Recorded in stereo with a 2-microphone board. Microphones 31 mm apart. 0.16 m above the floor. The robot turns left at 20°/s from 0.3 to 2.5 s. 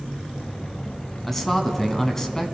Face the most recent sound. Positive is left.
turn(degrees=15)  # may be behind; listen again after turning